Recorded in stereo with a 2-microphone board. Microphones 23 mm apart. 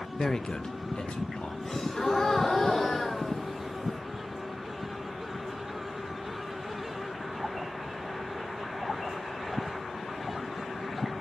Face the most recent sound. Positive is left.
turn(degrees=15)  # may be behind; listen again after turning